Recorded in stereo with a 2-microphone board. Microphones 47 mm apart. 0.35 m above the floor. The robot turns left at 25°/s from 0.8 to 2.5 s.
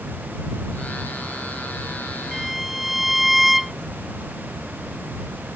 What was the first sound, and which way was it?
A violin, centre (ahead or behind).